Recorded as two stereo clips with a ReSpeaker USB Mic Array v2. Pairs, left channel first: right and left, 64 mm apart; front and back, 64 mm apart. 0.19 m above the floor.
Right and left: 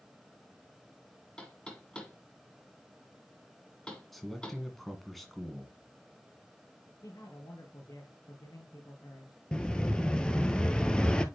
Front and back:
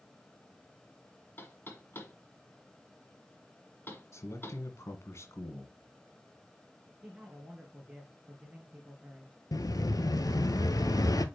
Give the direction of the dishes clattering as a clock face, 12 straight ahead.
No dishes clattering in this recording.